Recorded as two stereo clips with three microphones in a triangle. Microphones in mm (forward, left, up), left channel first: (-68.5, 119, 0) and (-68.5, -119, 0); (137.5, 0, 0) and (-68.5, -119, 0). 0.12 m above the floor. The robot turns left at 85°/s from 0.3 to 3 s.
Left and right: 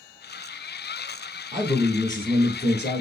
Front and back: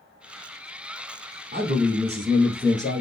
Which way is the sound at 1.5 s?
155° right.